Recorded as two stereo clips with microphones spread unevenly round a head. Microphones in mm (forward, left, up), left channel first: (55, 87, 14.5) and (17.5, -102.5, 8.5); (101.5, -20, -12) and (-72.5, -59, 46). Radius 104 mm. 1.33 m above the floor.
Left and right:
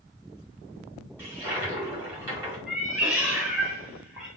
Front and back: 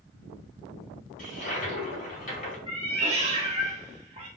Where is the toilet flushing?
25° right, 2.5 m.